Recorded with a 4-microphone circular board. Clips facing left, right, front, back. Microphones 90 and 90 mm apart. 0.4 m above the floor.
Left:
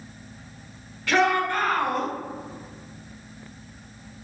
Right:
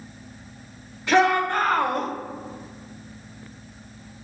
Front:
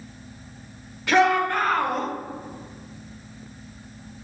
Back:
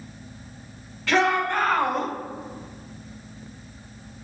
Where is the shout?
50° right, 0.8 m; by 2.1 s 90° right, 1.0 m.